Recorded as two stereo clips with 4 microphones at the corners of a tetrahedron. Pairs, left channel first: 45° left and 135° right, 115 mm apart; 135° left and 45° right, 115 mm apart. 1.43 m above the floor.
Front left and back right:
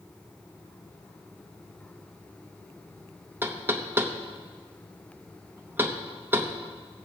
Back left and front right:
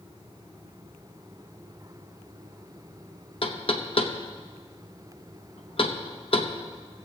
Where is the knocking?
160° left, 0.8 m.